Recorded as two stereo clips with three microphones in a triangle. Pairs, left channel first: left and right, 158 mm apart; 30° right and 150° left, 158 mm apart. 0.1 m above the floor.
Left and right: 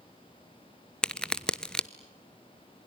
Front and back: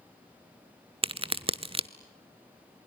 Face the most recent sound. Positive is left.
turn(degrees=170)